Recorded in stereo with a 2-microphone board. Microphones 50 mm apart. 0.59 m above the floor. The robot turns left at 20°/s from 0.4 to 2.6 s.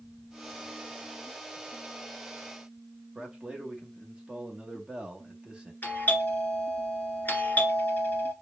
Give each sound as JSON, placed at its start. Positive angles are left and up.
{"t": 3.1, "sound": "a man speaking", "side_deg": -20, "distance_m": 1.0}
{"t": 5.8, "sound": "a doorbell", "side_deg": 35, "distance_m": 2.0}